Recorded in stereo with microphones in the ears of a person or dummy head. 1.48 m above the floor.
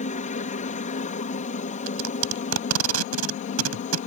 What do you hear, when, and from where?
0.0 s a helicopter: 40° left (ahead or behind)
1.9 s tape being pulled: 80° right